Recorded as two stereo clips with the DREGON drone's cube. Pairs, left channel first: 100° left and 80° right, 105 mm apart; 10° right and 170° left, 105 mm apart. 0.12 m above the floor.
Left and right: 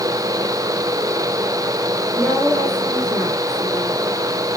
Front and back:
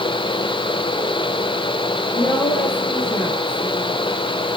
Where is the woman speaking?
10° right, 4.5 m; by 4.0 s 10° left, 3 m.